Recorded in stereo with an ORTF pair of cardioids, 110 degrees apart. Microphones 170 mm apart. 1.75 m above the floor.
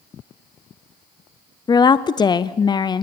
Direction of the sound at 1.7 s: 25° left.